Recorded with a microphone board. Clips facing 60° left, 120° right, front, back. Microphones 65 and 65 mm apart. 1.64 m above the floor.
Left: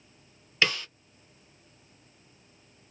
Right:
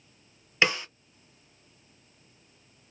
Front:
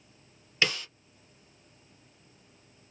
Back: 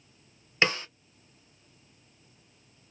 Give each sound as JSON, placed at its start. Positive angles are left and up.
{"t": 0.6, "sound": "a snare drum", "azimuth_deg": -165, "distance_m": 0.8}